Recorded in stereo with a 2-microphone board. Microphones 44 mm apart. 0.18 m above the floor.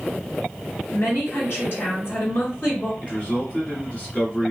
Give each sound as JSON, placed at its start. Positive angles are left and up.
{"t": 0.9, "sound": "a woman speaking", "side_deg": 55, "distance_m": 2.0}
{"t": 3.0, "sound": "a man speaking", "side_deg": 35, "distance_m": 1.5}